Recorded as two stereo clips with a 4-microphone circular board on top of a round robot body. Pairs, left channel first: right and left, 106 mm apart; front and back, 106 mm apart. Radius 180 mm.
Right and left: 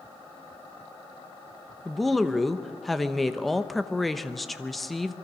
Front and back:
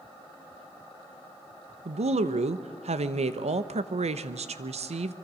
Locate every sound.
1.9 s a woman speaking: straight behind, 1.1 m